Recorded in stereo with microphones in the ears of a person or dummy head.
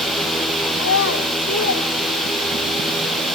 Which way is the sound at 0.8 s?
85° left.